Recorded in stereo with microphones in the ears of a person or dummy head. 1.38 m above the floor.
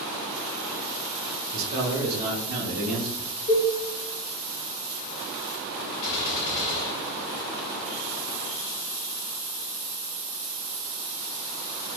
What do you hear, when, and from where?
1.5 s a man speaking: 65° right (ahead or behind), 1.0 m; by 3.3 s 75° right (ahead or behind), 1.4 m
3.5 s a cowbell: 30° left (ahead or behind), 0.7 m
6.0 s a gunshot: 35° left (ahead or behind), 1.5 m